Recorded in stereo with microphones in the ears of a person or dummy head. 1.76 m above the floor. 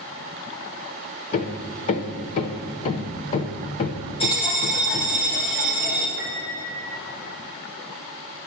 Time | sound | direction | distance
1.3 | hammering | 40° left (ahead or behind) | 0.8 m
4.2 | a bell | 30° left (ahead or behind) | 2 m
6.2 | a piano | 45° left (ahead or behind) | 3.5 m